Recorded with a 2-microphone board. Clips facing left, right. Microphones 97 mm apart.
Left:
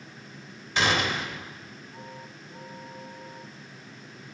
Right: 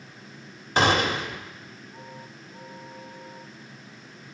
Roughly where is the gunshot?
Right.